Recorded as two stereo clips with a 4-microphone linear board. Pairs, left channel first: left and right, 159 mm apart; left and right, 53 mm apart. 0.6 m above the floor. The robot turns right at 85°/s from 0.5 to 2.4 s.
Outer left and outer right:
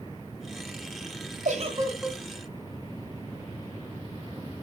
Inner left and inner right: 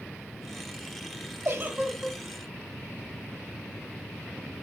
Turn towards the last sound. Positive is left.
turn(degrees=25)